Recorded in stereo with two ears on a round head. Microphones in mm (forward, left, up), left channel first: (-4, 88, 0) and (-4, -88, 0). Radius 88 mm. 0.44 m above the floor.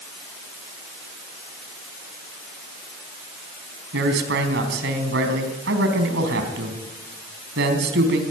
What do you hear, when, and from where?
3.9 s a man speaking: 60° right (ahead or behind), 4 m